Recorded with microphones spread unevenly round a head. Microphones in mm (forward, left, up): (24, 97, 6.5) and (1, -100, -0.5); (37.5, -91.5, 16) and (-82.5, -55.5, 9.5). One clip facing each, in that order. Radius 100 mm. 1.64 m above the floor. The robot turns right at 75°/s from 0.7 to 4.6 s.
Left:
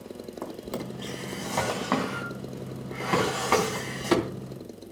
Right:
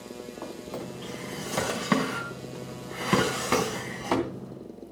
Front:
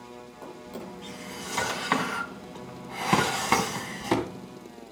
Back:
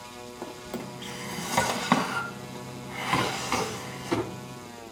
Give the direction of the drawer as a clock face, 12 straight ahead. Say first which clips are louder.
Left 3 dB, back 3 dB; 8 o'clock.